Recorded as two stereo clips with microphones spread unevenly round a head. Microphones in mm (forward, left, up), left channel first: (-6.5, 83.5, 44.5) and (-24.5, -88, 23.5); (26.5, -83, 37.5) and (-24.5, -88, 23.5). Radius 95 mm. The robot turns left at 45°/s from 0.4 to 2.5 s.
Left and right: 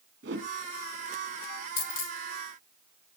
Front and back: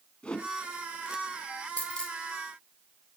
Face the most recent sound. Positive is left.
turn(degrees=65)